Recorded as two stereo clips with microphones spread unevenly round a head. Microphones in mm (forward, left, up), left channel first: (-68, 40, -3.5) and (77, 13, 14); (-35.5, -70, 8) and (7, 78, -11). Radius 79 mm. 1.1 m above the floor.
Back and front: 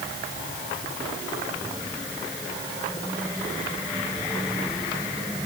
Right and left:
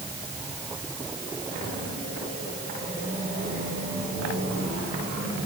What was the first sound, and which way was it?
Only background noise.